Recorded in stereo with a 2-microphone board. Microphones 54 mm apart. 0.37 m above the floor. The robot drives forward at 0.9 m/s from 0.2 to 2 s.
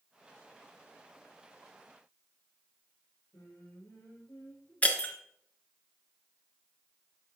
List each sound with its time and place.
3.3 s singing: 80° left, 5 m
4.8 s breaking glass: 25° left (ahead or behind), 1.5 m